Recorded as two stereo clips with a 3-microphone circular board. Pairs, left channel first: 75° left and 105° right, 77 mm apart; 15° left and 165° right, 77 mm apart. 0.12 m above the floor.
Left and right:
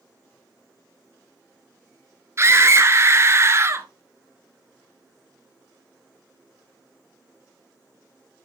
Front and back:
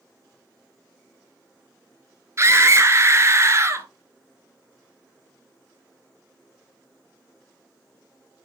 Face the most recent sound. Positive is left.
turn(degrees=-140)